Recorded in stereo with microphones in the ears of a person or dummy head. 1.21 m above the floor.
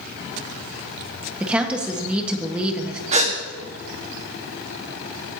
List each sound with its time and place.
1.4 s a woman speaking: 5° right (ahead or behind), 1.4 m
3.1 s a gasp: 45° right (ahead or behind), 1.6 m